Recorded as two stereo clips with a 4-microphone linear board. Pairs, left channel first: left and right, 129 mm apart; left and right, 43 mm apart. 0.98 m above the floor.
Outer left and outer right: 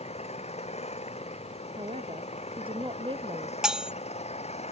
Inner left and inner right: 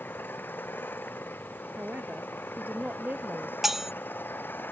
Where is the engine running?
55° left (ahead or behind).